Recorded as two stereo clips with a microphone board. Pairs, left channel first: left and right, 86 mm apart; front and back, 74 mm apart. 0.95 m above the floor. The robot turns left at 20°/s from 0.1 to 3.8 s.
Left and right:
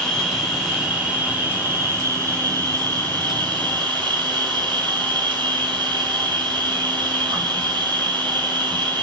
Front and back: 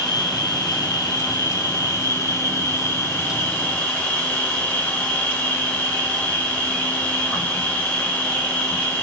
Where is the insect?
5° left, 2.5 m; by 9.0 s 70° right, 2.5 m.